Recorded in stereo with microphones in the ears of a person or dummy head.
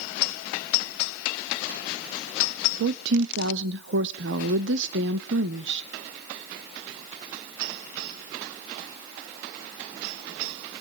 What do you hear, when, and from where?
2.8 s a woman speaking: 70° right (ahead or behind), 0.7 m